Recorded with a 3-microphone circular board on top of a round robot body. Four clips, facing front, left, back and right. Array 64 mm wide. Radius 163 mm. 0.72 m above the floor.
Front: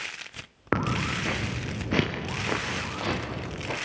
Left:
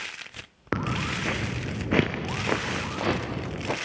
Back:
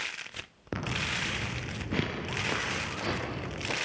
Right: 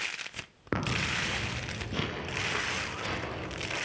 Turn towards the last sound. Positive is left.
turn(degrees=85)